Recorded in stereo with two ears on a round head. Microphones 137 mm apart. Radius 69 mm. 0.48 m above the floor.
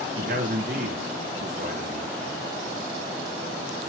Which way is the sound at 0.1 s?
55° right (ahead or behind).